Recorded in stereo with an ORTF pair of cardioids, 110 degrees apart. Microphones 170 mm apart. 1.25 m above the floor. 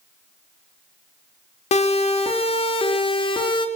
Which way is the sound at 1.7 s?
40° left.